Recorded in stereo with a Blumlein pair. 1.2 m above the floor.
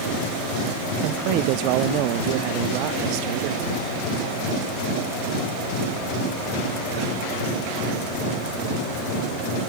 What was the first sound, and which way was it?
A man speaking, 40° right.